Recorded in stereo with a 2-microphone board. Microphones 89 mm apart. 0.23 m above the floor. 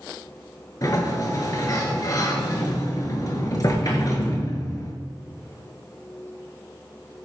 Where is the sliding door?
45° left (ahead or behind), 0.6 m.